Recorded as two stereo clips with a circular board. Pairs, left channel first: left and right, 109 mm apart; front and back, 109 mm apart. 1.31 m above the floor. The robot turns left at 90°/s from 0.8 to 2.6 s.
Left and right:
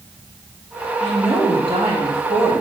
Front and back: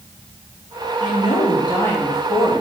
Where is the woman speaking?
15° left, 3 m; by 2.6 s 130° right, 3 m.